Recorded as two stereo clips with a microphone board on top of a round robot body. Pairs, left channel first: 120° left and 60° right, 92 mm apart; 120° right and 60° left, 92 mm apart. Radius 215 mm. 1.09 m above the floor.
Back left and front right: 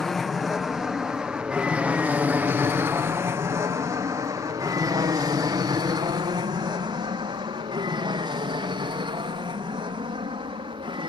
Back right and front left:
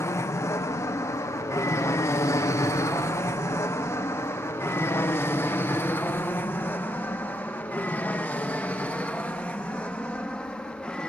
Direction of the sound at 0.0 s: 155° right.